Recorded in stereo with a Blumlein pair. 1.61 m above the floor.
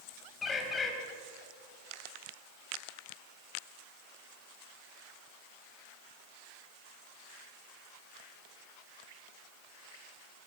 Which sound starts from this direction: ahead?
A bird, at 0.4 s.